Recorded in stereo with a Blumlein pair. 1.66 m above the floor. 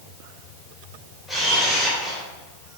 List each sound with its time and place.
1.3 s a camera shutter: 10° left, 2 m